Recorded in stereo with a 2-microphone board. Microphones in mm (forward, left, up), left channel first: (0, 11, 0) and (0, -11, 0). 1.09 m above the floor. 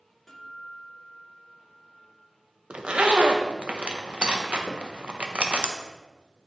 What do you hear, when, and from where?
0.3 s a guitar: 15° left (ahead or behind), 1.8 m
2.7 s a zipper: 55° right (ahead or behind), 0.7 m
4.7 s tapping: 25° left (ahead or behind), 1.2 m